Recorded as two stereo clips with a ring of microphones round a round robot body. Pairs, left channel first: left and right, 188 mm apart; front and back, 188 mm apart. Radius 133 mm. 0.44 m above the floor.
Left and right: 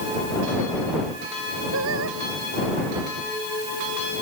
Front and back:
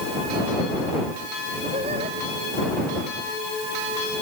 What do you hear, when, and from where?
1.7 s singing: 110° right